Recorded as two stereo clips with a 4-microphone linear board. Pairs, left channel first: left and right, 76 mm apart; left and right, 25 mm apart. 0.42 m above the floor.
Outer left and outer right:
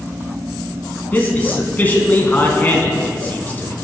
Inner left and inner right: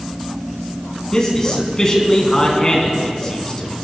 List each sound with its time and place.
1.1 s a man speaking: 25° left (ahead or behind), 3 m